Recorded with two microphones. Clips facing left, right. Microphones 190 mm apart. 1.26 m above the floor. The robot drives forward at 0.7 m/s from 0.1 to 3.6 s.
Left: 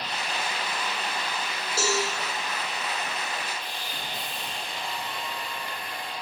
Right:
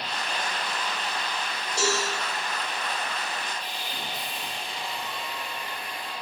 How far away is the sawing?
About 4 m.